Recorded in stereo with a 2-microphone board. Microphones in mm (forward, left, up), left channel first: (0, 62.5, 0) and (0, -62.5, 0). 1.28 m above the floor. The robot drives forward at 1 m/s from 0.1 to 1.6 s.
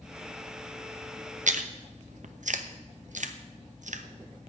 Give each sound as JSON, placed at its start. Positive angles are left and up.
{"t": 1.5, "sound": "chewing", "side_deg": -80, "distance_m": 0.9}